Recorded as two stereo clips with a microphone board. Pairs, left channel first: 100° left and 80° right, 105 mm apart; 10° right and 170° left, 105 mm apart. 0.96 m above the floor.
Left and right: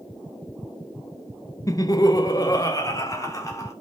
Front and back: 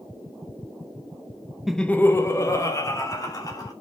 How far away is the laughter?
About 0.6 m.